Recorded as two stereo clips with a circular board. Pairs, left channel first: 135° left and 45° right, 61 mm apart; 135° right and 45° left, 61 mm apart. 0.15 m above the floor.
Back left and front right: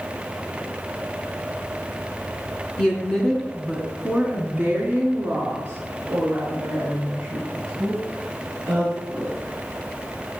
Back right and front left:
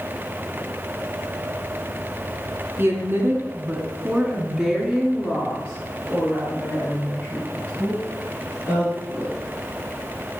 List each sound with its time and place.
2.8 s a woman speaking: 65° left, 2.0 m; by 9.4 s 90° right, 5 m